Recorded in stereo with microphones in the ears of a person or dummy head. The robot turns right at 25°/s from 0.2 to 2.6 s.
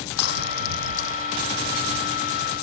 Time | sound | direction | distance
0.2 | breaking glass | 85° left | ?